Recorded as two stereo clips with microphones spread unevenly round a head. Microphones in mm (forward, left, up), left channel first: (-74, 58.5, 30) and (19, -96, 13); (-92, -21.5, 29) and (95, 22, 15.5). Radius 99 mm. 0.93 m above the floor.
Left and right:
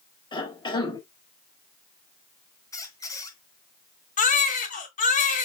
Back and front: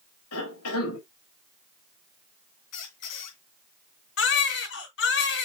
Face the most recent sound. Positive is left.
turn(degrees=165)